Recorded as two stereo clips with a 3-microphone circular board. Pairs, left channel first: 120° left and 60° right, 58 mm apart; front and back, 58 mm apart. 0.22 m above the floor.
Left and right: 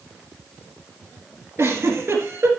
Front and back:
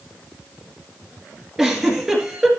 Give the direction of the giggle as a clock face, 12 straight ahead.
3 o'clock.